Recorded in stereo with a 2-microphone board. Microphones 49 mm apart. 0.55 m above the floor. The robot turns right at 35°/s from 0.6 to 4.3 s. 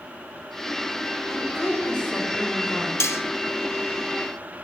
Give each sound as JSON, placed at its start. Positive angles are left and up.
{"t": 1.3, "sound": "a woman speaking", "azimuth_deg": 0, "distance_m": 2.5}
{"t": 3.0, "sound": "cutlery clinking", "side_deg": 60, "distance_m": 0.5}